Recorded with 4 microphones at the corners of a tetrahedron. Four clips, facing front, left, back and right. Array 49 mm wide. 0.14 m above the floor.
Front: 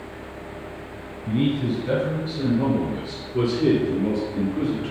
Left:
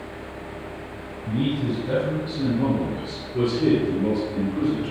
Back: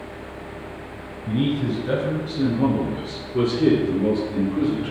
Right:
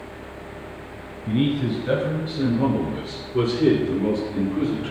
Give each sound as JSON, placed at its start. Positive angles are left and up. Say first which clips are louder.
{"t": 1.3, "sound": "a man speaking", "louder": "right 2 dB, even", "azimuth_deg": -100, "distance_m": 2.5}